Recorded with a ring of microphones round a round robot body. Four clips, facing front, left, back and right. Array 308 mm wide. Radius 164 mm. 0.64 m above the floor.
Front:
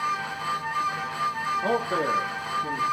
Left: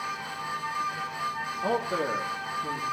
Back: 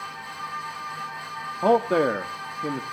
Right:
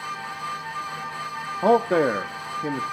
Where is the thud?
No thud in this recording.